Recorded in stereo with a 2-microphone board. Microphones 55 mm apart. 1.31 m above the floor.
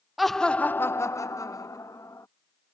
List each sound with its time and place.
0.2 s laughter: centre (ahead or behind); by 2.3 s 85° left